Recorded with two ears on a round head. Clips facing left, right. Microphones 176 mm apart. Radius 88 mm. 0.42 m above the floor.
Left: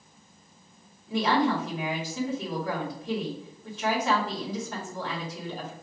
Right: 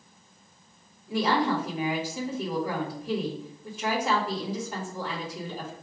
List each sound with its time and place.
1.1 s a woman speaking: 10° right (ahead or behind), 1.5 m